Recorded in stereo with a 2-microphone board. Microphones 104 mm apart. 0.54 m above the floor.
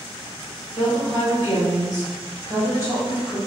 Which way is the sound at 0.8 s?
35° left (ahead or behind).